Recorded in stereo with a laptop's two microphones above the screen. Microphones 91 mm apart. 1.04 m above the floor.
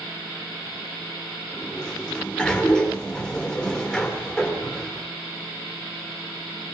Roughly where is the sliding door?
Centre.